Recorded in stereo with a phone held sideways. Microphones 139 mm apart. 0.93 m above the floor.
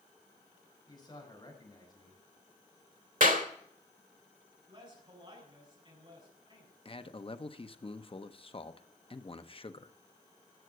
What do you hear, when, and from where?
0.9 s a man speaking: 30° left (ahead or behind), 5 m
3.2 s a clap: 70° right (ahead or behind), 1.8 m
4.7 s a man speaking: 40° right (ahead or behind), 6.5 m
6.8 s a man speaking: 40° left (ahead or behind), 0.8 m